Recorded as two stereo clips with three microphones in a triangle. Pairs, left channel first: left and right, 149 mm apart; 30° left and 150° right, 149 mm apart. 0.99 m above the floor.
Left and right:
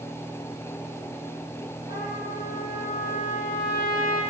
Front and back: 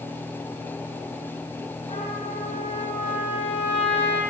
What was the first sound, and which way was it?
A trumpet, 75° left.